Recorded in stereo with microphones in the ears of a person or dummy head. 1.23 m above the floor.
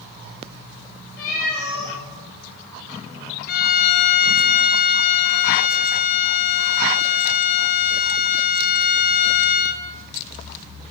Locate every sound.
1.2 s a cat meowing: 50° left (ahead or behind), 2.5 m
3.5 s a violin: 55° left (ahead or behind), 0.7 m